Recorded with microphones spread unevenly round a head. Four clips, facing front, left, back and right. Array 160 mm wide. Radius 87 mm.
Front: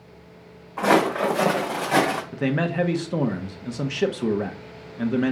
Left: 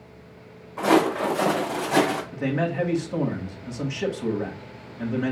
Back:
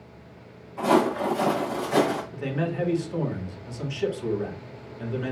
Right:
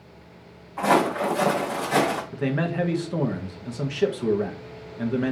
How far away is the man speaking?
About 1.3 m.